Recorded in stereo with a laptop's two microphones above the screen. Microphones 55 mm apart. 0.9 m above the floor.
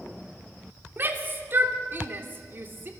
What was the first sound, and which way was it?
A shout, 40° right (ahead or behind).